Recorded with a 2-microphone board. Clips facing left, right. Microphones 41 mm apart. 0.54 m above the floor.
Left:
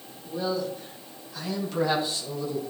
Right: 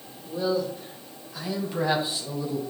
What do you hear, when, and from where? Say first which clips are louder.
0.2 s a man speaking: right 2 dB; centre (ahead or behind), 2.5 m; by 2.6 s 25° right (ahead or behind), 5 m